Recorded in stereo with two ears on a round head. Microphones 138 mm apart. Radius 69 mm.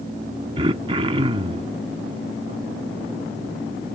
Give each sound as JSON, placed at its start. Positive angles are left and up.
{"t": 0.6, "sound": "throat clearing", "side_deg": -35}